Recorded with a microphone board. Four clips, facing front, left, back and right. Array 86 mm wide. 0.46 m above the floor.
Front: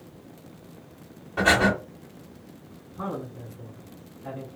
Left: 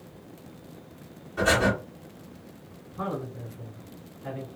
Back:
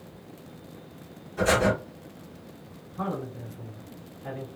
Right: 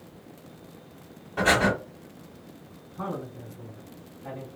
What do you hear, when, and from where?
1.4 s breathing: 30° right, 1.0 m
3.0 s a man speaking: 115° left, 1.5 m